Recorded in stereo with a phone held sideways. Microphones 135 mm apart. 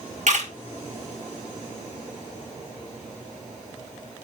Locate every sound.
0.3 s a camera shutter: 60° right (ahead or behind), 2.5 m